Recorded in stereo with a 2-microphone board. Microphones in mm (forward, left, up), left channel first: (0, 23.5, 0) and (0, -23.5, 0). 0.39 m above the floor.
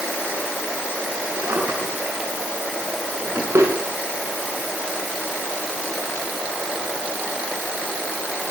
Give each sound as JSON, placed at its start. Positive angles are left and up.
{"t": 1.4, "sound": "a drawer", "side_deg": -70, "distance_m": 9.5}